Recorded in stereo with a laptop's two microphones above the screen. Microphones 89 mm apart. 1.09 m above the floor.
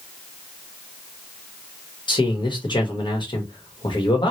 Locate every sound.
2.1 s a man speaking: 60° left (ahead or behind), 1.5 m